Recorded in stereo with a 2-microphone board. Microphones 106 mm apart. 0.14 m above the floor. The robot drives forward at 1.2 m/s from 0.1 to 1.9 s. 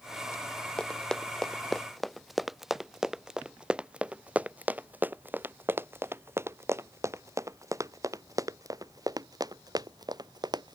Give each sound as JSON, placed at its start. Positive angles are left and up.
{"t": 0.8, "sound": "running footsteps", "side_deg": 5}